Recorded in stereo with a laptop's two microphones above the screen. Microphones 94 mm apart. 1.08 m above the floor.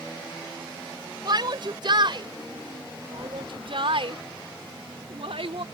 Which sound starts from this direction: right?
A shout, at 1.2 s.